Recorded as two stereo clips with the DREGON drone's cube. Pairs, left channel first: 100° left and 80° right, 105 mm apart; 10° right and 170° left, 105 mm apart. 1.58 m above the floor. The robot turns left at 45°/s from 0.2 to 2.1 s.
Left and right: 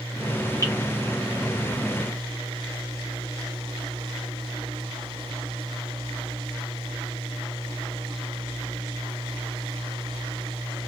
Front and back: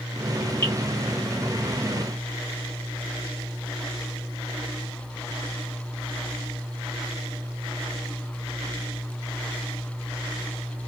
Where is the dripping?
50° left, 1.4 m; by 0.7 s 45° left, 1.4 m.